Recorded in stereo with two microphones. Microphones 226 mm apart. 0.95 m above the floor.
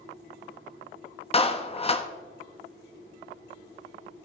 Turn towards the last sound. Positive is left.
turn(degrees=30)  # may be behind; listen again after turning